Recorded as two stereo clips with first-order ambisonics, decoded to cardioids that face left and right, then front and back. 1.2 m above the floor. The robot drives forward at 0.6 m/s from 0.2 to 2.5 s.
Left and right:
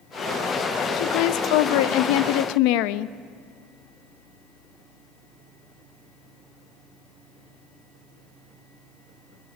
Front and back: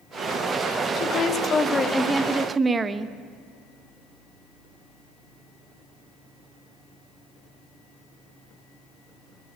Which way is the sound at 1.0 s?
55° left.